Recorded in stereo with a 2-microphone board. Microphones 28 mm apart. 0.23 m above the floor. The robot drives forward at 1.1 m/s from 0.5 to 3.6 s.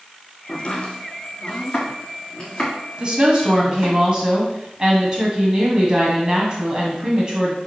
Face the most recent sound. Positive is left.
turn(degrees=-30)  # may be behind; listen again after turning